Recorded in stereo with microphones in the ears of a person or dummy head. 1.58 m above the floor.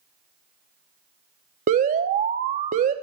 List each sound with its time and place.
1.7 s an alarm: 45° right (ahead or behind), 1.0 m